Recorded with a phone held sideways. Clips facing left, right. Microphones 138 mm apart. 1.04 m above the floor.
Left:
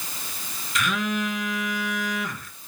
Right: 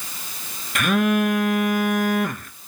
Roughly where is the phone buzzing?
Right.